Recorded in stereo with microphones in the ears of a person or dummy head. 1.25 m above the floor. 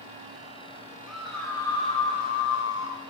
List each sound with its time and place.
1.1 s a scream: centre (ahead or behind), 1.5 m; by 3.0 s 70° left (ahead or behind), 1.6 m